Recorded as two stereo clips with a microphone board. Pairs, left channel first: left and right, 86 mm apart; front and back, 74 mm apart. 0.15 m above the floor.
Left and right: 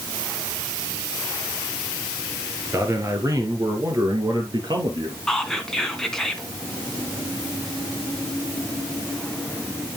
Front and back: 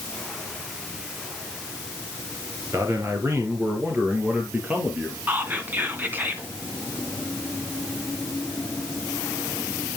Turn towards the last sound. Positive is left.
turn(degrees=170)